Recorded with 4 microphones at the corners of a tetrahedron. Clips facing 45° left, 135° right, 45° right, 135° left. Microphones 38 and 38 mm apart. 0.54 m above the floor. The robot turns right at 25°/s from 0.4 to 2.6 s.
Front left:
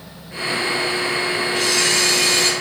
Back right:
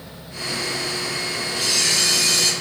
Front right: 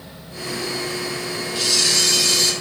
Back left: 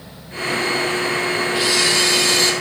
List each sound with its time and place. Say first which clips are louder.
1.6 s a camera shutter: front left 2 dB, back left 1 dB; 70° left, 3.5 m; by 2.5 s 90° left, 3.5 m